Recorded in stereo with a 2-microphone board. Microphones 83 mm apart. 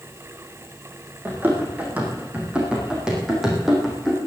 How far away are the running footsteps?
About 5 m.